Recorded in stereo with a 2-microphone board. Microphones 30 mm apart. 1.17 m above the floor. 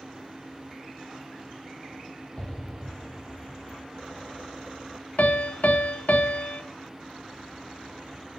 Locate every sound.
2.4 s an explosion: 40° left (ahead or behind), 1.1 m
5.2 s a piano: 75° left (ahead or behind), 1.1 m